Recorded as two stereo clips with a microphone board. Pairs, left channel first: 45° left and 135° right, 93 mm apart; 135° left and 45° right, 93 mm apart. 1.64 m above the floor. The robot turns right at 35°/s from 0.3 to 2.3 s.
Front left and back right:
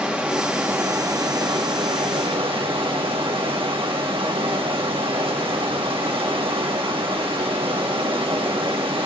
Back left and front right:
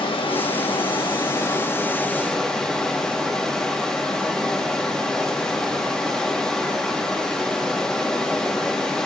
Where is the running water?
150° left, 1.4 m; by 9.1 s 140° right, 1.4 m.